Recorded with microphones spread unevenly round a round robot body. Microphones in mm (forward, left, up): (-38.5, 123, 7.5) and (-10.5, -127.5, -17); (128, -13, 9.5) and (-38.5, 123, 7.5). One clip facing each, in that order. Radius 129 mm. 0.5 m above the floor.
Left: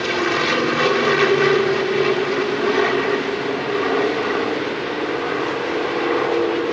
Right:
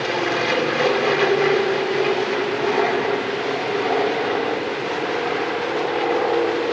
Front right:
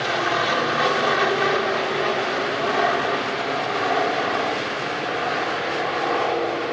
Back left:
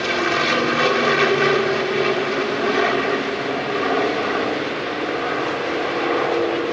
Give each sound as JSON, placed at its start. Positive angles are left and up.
{"t": 0.0, "sound": "an aircraft", "azimuth_deg": 135}